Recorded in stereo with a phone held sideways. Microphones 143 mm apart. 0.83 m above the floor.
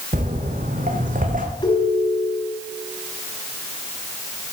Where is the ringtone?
30° left (ahead or behind), 3 m.